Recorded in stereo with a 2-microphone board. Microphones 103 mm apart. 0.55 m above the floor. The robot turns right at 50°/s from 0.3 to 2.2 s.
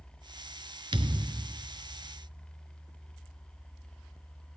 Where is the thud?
75° right, 0.9 m; by 1.5 s 45° right, 0.9 m.